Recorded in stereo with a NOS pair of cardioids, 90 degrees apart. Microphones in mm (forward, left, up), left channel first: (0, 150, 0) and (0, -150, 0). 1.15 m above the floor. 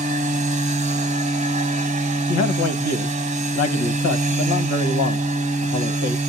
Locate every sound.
0.0 s a machine running: 25° right, 1.0 m
2.3 s a man speaking: 65° left, 1.2 m